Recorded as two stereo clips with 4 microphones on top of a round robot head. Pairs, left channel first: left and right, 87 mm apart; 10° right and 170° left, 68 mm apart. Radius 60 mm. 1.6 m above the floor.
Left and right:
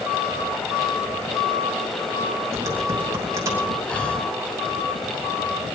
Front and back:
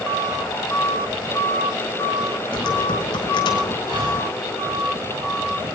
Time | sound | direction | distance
2.5 | typing on a keyboard | 30° right | 2.5 m
3.9 | breathing | 165° left | 4.5 m